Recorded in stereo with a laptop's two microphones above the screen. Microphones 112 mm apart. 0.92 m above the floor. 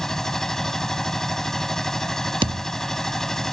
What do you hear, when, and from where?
0.0 s a machine running: 5° left (ahead or behind)
2.4 s a thud: 50° right (ahead or behind)